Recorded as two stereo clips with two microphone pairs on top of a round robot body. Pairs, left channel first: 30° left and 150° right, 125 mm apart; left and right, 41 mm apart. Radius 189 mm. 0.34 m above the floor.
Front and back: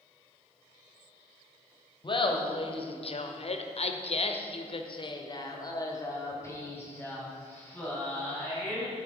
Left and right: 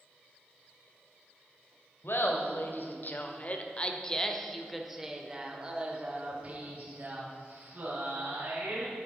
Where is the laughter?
75° left, 1.9 m; by 8.9 s 50° right, 3.5 m.